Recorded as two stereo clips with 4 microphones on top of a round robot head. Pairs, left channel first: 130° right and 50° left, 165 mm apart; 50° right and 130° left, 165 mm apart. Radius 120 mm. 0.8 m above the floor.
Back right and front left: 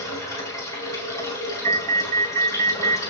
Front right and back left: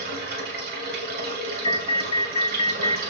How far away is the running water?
About 5 m.